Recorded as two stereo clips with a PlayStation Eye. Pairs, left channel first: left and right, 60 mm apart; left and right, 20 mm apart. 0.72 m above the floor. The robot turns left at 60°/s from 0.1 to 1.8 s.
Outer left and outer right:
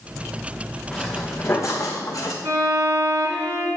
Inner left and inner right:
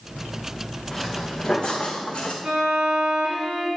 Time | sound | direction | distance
0.9 | footsteps | 5° right (ahead or behind) | 2.5 m
2.4 | a violin | 35° right (ahead or behind) | 4.5 m